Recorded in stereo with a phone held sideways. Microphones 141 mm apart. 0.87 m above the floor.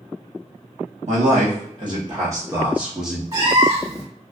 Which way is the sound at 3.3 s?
30° right (ahead or behind).